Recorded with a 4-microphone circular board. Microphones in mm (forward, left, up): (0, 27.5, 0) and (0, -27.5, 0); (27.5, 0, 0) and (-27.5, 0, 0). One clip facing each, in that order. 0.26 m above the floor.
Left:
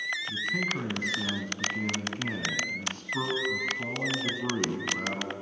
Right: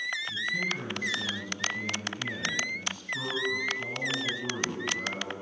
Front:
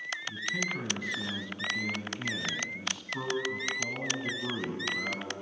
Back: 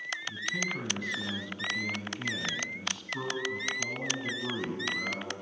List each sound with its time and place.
0.3 s a man speaking: 75° left, 1.5 m